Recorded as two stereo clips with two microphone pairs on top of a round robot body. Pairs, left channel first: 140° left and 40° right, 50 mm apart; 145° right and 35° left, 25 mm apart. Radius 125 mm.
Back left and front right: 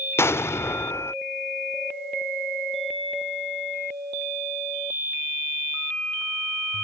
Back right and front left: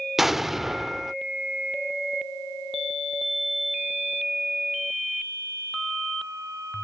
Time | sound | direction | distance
0.2 | an explosion | 115° left | ?